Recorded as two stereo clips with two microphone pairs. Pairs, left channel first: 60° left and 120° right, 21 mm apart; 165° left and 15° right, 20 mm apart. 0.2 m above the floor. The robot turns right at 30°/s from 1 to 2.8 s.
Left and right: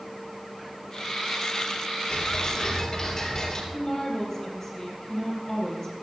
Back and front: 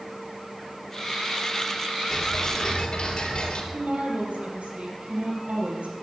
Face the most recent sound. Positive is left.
turn(degrees=-15)